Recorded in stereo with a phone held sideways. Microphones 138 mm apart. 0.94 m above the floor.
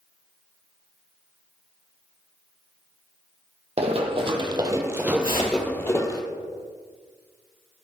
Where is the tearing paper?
80° left, 4.5 m.